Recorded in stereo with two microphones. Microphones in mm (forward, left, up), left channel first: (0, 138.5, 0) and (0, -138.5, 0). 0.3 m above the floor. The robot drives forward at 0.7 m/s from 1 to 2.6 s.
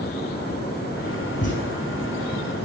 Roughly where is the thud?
Left.